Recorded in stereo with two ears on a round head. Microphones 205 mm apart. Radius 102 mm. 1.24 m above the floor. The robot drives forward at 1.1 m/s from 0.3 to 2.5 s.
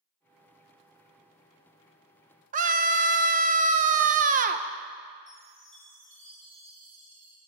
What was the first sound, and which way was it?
A scream, 35° right (ahead or behind).